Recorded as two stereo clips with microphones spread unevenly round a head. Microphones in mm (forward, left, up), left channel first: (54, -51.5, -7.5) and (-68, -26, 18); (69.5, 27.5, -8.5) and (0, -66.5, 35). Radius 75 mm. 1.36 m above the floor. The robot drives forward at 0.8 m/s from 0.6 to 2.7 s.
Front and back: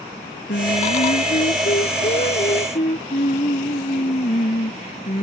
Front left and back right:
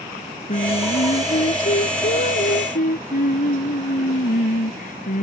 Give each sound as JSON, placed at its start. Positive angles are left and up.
{"t": 0.5, "sound": "singing", "azimuth_deg": 20}